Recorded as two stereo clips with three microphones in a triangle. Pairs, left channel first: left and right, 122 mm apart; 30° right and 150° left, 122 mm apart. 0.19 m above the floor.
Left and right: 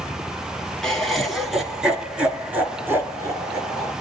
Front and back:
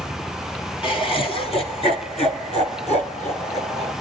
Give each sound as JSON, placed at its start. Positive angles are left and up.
{"t": 0.8, "sound": "laughter", "azimuth_deg": 5, "distance_m": 3.0}